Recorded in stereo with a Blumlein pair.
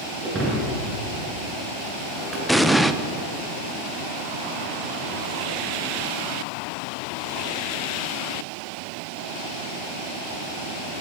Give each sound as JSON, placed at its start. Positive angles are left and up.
{"t": 0.2, "sound": "breaking glass", "azimuth_deg": -20, "distance_m": 7.0}
{"t": 2.5, "sound": "an explosion", "azimuth_deg": 0, "distance_m": 1.1}